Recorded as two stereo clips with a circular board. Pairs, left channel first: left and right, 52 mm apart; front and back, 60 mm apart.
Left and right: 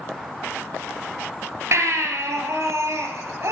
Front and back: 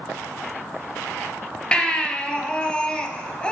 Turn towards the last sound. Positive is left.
turn(degrees=-70)